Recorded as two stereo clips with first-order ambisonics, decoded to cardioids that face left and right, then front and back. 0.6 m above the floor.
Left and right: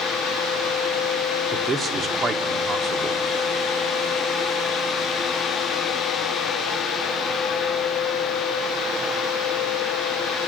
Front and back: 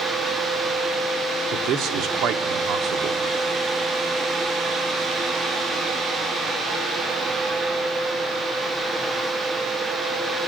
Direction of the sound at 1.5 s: 155° right.